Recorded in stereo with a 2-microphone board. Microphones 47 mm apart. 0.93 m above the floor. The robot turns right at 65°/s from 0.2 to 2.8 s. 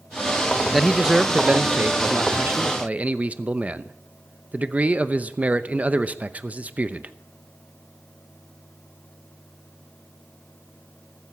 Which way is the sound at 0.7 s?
175° left.